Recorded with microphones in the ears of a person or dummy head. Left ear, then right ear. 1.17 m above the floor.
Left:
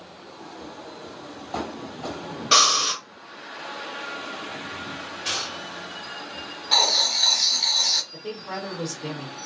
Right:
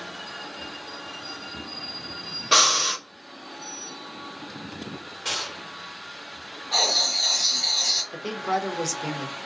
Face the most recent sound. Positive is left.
turn(degrees=-80)